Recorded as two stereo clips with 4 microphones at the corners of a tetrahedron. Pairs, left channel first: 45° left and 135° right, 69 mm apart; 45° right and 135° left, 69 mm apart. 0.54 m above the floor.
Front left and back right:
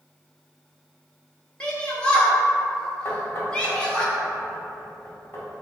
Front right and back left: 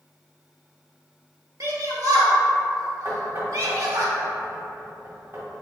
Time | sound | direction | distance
1.6 | a shout | 120° left | 1.1 m
3.0 | knocking | 100° left | 1.5 m